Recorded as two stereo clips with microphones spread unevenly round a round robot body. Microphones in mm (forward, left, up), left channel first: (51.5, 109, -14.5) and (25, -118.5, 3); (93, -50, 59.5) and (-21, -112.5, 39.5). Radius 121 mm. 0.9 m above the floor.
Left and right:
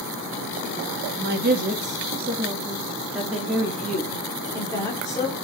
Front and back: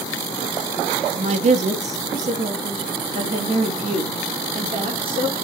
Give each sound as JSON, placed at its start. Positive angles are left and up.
{"t": 1.2, "sound": "a woman speaking", "azimuth_deg": -145, "distance_m": 1.7}